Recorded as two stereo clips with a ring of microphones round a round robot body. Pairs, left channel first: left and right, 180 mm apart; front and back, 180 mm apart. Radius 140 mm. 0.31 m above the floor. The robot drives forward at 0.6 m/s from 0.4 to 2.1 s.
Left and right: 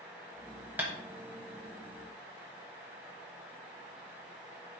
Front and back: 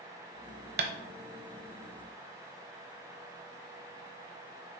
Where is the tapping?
170° right, 0.9 m.